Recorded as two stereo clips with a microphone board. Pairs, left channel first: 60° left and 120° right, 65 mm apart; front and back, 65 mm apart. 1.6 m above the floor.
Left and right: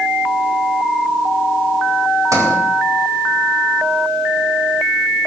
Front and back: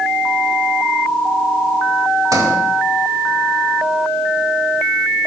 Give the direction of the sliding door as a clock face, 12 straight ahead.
5 o'clock.